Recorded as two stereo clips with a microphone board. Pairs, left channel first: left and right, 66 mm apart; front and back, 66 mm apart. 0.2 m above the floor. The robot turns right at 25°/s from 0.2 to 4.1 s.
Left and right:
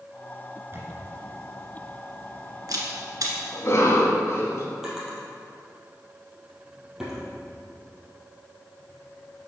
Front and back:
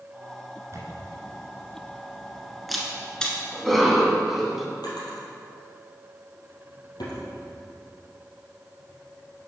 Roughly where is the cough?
Left.